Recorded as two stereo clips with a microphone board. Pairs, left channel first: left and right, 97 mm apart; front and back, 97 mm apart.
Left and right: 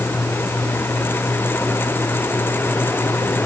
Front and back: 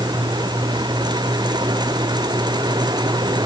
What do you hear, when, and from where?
Only background noise.